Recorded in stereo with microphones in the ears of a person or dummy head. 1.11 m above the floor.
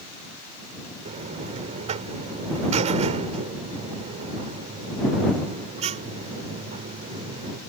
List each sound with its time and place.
1.1 s a buzzer: 35° right (ahead or behind)